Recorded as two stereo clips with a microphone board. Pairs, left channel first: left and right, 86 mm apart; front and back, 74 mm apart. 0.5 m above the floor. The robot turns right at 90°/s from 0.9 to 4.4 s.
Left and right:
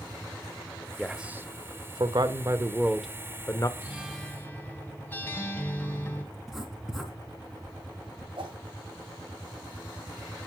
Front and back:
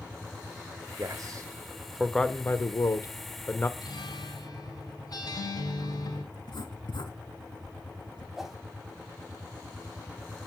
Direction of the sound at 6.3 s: 5° right.